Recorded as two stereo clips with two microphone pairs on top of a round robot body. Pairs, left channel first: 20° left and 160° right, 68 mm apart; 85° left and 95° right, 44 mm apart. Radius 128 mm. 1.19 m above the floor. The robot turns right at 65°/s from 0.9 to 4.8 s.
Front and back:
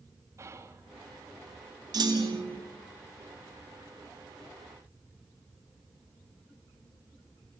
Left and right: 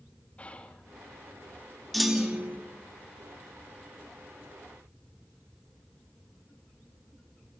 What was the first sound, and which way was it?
Whispering, 150° left.